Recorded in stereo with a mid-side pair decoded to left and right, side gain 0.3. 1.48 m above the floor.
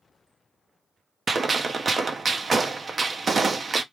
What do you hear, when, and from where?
1.3 s a gunshot: 50° right, 0.7 m